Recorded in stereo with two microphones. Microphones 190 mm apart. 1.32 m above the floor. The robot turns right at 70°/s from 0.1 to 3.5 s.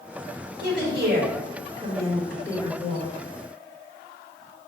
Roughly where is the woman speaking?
Right.